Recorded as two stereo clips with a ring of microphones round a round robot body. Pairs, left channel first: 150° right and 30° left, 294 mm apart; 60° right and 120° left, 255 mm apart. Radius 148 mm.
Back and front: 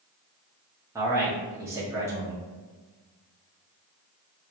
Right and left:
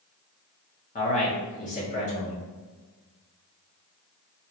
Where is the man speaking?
40° right, 1.0 m.